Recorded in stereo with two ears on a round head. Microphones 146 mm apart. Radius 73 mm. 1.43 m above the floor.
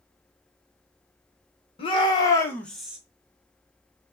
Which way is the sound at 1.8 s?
35° left (ahead or behind).